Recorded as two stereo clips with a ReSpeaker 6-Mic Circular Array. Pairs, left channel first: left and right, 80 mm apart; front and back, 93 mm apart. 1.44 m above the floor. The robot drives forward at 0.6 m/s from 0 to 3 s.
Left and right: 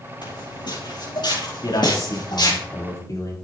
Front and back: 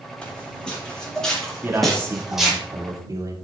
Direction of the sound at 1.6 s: 115° left.